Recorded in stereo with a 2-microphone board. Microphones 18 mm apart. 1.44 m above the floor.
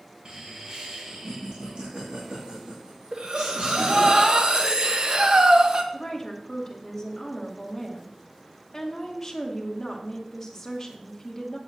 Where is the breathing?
55° right (ahead or behind), 1.1 m.